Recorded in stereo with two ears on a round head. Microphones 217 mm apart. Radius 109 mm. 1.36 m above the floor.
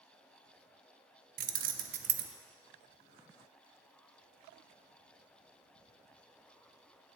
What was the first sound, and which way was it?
Keys jangling, 35° right (ahead or behind).